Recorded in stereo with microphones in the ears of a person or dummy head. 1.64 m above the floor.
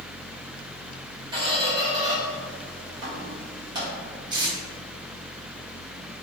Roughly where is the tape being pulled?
Right.